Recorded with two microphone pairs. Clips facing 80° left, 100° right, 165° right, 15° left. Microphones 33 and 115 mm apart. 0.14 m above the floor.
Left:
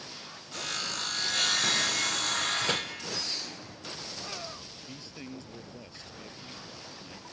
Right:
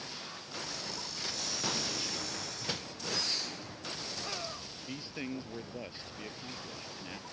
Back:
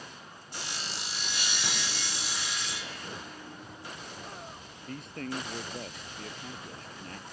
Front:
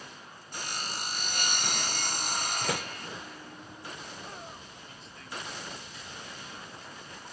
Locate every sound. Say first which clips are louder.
0.5 s sawing: left 8 dB, front 2 dB; 55° left
2.6 s a door slam: left 9 dB, front 7 dB; 20° left
4.9 s a man speaking: right 5 dB, back 10 dB; 160° right